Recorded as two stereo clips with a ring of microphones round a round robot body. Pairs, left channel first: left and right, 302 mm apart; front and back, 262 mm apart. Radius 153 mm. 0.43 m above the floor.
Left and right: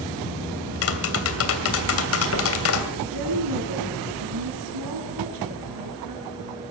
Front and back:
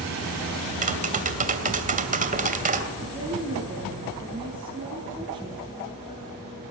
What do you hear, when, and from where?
0.8 s tapping: 125° left, 2.5 m
3.0 s a woman speaking: 105° right, 5.5 m